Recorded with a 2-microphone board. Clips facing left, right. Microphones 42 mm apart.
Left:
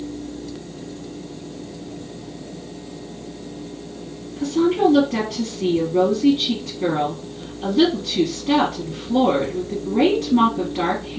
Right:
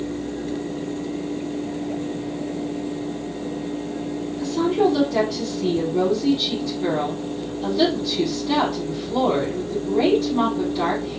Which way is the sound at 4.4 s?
45° left (ahead or behind).